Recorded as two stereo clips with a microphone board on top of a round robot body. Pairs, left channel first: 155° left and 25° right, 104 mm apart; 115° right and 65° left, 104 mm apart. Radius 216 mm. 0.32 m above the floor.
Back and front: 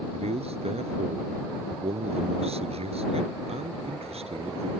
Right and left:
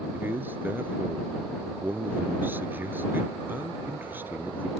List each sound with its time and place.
0.1 s a man speaking: 5° right